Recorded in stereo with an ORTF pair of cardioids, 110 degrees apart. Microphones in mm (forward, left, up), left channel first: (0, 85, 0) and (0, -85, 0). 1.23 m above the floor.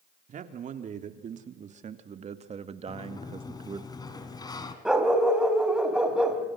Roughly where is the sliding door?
Ahead left.